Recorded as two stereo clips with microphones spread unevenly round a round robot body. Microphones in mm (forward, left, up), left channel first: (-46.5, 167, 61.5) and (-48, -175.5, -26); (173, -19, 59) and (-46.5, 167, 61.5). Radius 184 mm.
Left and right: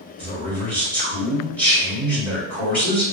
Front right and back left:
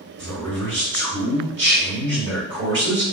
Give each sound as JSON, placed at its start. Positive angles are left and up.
{"t": 0.2, "sound": "a man speaking", "azimuth_deg": -175, "distance_m": 1.7}